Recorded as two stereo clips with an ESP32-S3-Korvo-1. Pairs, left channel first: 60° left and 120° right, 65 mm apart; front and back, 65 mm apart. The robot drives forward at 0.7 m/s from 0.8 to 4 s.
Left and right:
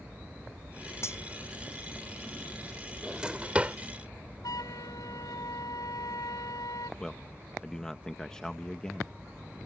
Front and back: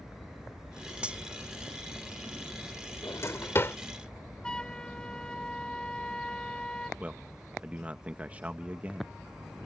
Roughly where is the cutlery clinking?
Left.